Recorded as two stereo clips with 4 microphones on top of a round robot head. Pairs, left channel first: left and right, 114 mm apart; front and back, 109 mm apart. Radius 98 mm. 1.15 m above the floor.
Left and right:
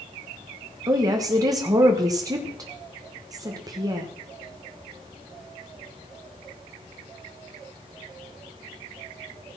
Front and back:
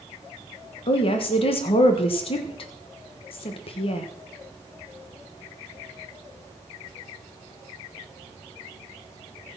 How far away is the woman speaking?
About 1.2 m.